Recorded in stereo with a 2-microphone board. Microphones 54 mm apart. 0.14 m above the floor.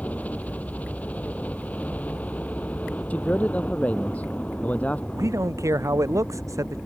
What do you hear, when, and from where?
0.0 s a helicopter: 25° left (ahead or behind)
3.1 s a man speaking: 30° left (ahead or behind)
5.1 s a man speaking: 75° right (ahead or behind)